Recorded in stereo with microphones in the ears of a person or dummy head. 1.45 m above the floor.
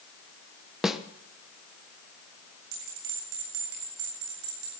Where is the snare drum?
5° right (ahead or behind), 1.0 m.